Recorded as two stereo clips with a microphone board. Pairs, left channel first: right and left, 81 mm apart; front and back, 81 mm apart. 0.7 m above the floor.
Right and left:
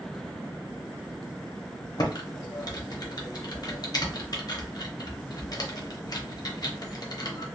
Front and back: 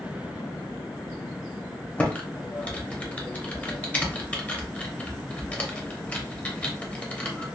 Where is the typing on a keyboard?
70° right, 0.6 m.